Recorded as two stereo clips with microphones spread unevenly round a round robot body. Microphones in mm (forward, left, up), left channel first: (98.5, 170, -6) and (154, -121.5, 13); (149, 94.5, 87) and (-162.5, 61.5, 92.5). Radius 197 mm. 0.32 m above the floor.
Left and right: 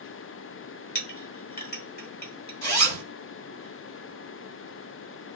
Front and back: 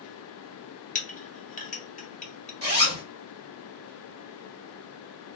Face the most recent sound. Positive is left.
turn(degrees=130)